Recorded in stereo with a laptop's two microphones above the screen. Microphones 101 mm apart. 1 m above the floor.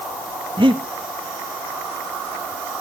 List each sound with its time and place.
0.6 s breathing: 50° right (ahead or behind), 1.3 m